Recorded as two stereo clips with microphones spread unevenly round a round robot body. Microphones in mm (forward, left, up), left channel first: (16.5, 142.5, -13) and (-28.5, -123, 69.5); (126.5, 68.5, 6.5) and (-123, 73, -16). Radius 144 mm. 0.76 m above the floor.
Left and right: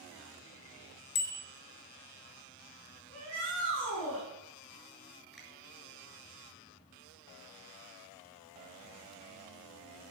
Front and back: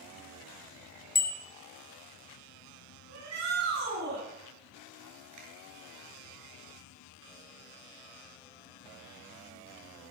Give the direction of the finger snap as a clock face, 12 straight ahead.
6 o'clock.